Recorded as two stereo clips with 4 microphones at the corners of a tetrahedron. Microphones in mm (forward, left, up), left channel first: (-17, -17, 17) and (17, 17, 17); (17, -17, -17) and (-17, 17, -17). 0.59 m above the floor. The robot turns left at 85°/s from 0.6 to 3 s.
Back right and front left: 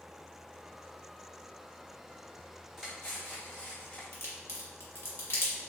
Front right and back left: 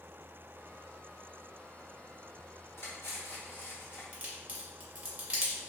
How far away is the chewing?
I don't hear chewing.